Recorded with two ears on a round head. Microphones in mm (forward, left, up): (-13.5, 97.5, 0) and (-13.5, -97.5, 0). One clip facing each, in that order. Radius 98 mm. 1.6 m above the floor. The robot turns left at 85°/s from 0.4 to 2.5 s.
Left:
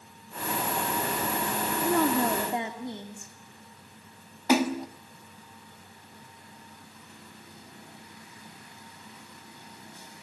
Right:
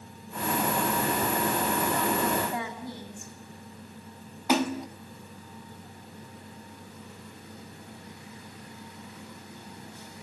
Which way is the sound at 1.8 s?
75° left.